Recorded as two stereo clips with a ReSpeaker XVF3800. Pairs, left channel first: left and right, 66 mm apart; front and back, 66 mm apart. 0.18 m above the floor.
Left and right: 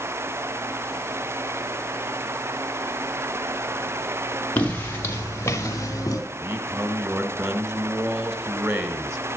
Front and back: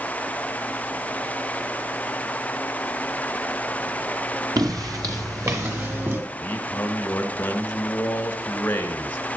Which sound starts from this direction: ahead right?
A man speaking, at 6.3 s.